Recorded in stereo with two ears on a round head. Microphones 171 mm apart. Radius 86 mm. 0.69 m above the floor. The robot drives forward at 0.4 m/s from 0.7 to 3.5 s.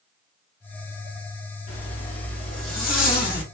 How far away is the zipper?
About 1.6 m.